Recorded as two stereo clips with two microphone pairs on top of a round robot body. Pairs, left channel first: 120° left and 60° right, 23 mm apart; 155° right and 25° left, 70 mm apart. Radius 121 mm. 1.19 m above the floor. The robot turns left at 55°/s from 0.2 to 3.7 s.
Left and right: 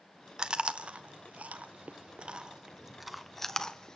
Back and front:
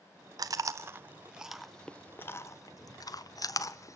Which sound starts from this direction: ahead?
Chewing, at 0.4 s.